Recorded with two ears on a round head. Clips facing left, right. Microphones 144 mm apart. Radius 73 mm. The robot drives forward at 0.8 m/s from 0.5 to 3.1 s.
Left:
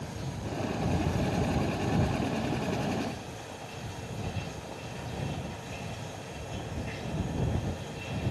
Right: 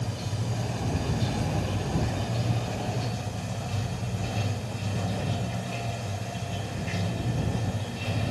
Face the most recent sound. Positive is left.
turn(degrees=-70)  # may be behind; listen again after turning